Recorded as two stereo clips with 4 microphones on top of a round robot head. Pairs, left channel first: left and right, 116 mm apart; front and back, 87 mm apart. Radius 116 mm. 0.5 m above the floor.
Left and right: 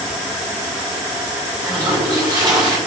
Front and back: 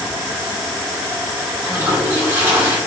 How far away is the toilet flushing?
About 1.3 m.